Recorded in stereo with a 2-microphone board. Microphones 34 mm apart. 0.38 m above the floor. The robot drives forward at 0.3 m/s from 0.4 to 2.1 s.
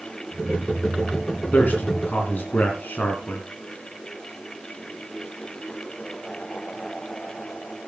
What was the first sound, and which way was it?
A man speaking, 45° left (ahead or behind).